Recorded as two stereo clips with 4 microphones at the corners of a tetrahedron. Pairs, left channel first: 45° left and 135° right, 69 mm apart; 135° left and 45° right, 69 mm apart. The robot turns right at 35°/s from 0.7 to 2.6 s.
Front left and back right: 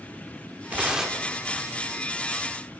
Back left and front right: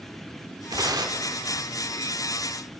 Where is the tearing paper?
65° right, 1.2 m; by 1.3 s 45° right, 1.2 m.